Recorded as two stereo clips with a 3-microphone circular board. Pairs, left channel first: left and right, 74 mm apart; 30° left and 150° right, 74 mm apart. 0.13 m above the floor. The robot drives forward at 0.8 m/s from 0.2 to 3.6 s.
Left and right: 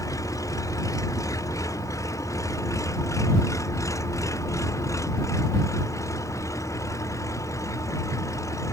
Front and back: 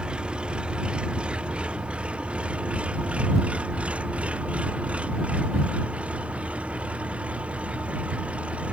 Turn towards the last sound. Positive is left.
turn(degrees=135)